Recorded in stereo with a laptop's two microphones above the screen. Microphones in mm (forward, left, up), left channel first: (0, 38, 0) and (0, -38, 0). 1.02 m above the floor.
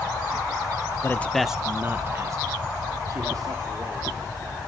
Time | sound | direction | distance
1.0 | a man speaking | 30° left (ahead or behind) | 0.8 m